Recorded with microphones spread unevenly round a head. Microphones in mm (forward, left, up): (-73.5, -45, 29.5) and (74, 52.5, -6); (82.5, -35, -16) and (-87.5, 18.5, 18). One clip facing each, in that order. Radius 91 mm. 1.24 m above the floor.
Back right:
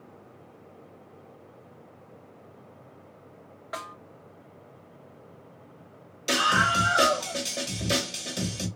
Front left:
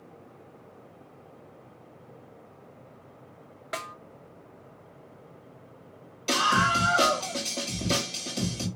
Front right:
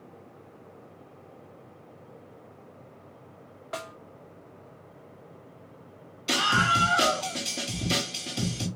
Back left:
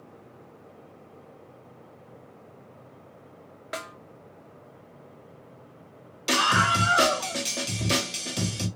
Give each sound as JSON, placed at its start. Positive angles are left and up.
{"t": 3.7, "sound": "a snare drum", "azimuth_deg": 95, "distance_m": 0.8}
{"t": 6.3, "sound": "a scream", "azimuth_deg": 135, "distance_m": 2.5}